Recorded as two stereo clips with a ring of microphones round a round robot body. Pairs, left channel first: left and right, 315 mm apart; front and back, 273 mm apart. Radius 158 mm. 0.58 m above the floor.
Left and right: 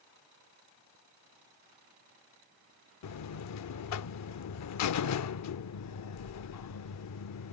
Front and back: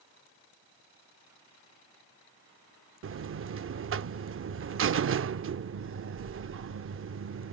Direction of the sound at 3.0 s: 130° left.